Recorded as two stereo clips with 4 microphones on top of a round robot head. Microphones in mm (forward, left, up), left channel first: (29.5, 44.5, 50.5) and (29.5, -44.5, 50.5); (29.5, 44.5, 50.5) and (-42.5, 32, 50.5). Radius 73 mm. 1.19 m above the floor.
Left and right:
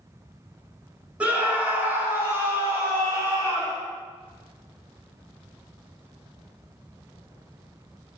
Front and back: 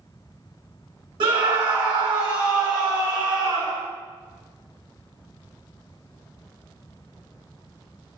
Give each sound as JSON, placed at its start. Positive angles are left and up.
{"t": 1.2, "sound": "a scream", "azimuth_deg": -170, "distance_m": 5.0}